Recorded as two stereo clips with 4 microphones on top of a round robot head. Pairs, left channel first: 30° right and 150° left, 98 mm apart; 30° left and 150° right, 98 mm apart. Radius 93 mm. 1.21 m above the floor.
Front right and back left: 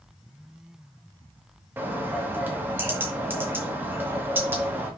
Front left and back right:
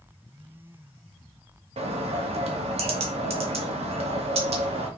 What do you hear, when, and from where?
1.8 s a bird: 145° right, 1.8 m